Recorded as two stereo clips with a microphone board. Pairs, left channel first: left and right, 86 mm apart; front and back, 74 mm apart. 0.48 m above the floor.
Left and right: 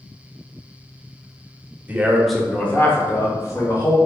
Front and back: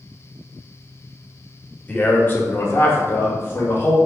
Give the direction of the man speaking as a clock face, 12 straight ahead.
2 o'clock.